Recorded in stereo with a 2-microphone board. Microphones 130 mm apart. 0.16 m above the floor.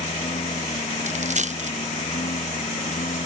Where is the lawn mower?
70° left (ahead or behind).